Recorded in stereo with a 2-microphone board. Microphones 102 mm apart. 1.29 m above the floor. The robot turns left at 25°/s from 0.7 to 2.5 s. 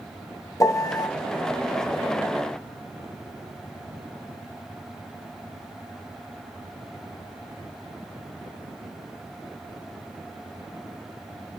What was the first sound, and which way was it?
A piano, 30° left (ahead or behind).